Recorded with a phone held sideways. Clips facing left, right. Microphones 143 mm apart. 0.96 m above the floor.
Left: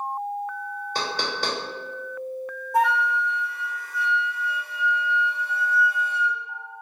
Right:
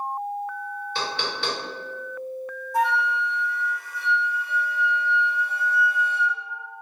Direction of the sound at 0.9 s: 40° left (ahead or behind).